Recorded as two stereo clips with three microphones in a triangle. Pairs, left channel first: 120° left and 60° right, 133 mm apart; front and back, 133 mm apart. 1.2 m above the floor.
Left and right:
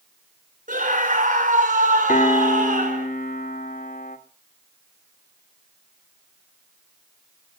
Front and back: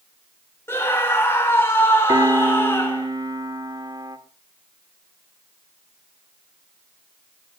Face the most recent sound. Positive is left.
turn(degrees=120)